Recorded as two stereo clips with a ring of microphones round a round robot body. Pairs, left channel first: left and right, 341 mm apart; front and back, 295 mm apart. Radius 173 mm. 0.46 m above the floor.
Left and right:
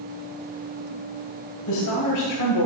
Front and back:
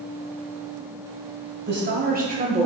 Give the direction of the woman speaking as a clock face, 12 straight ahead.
8 o'clock.